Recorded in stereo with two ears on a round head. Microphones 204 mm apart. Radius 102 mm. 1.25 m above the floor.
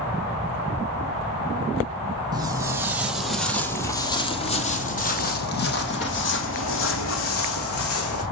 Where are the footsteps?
20° right (ahead or behind), 3 m; by 8.2 s 70° left (ahead or behind), 5.5 m.